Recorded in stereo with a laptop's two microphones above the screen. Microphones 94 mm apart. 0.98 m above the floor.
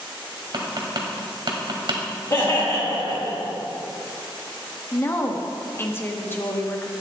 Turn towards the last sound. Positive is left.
turn(degrees=25)  # may be behind; listen again after turning